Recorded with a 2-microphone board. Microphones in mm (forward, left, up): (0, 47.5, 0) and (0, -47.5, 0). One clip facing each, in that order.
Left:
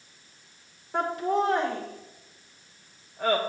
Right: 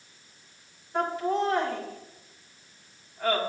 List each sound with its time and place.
0.9 s laughter: 70° left (ahead or behind), 3 m